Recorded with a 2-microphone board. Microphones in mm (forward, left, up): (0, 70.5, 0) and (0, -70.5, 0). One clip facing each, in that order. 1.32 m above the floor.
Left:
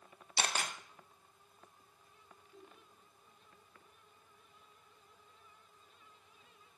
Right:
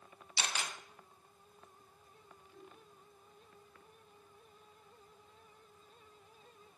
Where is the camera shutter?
50° left (ahead or behind), 0.9 m.